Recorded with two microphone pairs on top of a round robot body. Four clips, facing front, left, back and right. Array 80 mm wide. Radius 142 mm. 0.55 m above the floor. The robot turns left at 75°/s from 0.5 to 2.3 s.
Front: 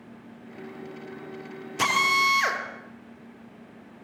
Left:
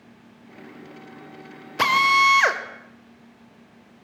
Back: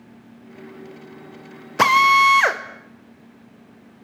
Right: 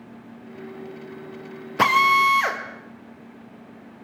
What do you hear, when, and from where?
1.8 s a drill: 170° right, 3 m; by 2.6 s 150° left, 3 m